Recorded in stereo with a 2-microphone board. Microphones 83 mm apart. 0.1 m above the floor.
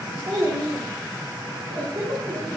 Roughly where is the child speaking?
Right.